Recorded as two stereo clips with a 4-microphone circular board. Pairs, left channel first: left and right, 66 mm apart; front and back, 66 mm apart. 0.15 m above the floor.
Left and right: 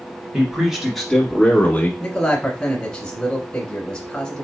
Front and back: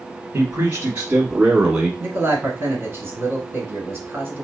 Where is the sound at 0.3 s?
160° right, 1.3 m; by 1.9 s 110° left, 1.3 m.